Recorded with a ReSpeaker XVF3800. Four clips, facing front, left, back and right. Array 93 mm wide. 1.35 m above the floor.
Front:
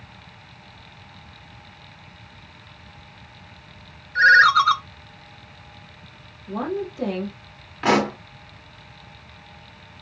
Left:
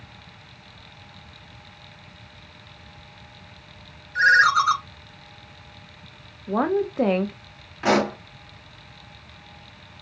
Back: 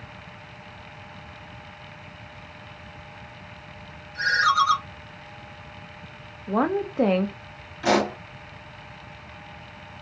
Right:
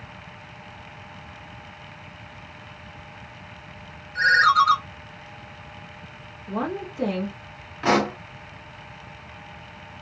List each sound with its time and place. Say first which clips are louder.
4.2 s a ringtone: left 1 dB, front 7 dB; 20° left, 0.5 m
6.5 s a woman speaking: left 6 dB, back 4 dB; 135° left, 0.7 m
7.8 s a pop: even, front 2 dB; 10° left, 1.5 m